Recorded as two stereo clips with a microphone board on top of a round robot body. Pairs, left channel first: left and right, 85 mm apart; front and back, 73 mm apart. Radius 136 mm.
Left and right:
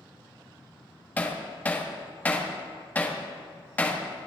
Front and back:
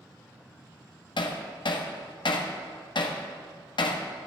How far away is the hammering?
About 1.5 m.